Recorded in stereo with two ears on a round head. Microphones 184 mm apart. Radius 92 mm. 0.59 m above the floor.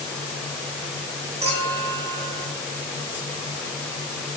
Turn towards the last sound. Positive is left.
turn(degrees=-30)  # may be behind; listen again after turning